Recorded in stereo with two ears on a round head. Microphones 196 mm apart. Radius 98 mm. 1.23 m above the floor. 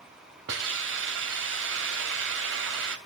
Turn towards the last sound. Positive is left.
turn(degrees=-60)  # may be behind; listen again after turning